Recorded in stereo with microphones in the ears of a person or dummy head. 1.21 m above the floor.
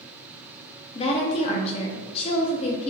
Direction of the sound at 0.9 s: 35° left (ahead or behind).